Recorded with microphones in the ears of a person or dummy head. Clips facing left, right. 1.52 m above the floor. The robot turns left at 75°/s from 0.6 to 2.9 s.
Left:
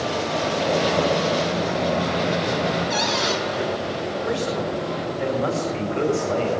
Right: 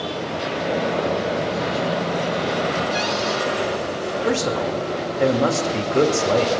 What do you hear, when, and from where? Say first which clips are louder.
2.9 s a cupboard door: right 1 dB; 80° left, 6.5 m
4.2 s a man speaking: right 4 dB; 50° right (ahead or behind), 2.5 m